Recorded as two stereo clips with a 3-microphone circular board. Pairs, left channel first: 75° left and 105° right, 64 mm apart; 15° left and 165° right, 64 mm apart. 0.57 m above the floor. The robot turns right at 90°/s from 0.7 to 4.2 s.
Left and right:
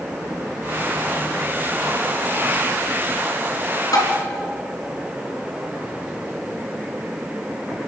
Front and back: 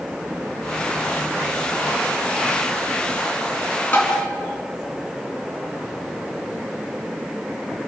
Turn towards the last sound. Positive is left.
turn(degrees=100)